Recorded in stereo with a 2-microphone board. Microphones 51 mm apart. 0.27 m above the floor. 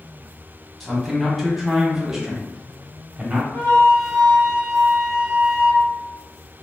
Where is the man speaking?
5° left (ahead or behind), 1.5 m; by 3.4 s 20° right (ahead or behind), 1.1 m.